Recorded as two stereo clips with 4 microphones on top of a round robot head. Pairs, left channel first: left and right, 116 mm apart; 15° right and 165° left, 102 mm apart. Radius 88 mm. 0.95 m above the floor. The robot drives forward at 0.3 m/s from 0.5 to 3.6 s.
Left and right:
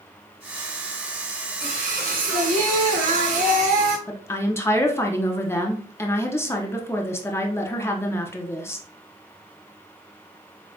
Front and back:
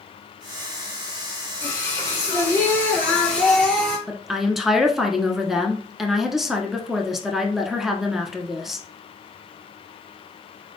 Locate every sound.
1.6 s singing: 70° right, 1.1 m; by 4.0 s 100° right, 1.0 m
4.1 s a woman speaking: 85° left, 0.8 m